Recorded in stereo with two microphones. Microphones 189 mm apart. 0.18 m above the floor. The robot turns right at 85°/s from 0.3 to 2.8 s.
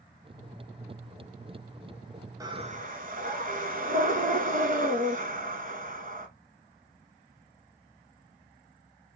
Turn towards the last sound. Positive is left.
turn(degrees=-125)